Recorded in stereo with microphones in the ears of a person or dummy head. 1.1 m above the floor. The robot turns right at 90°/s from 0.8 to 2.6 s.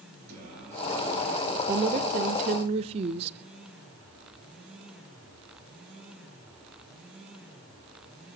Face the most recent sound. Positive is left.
turn(degrees=-50)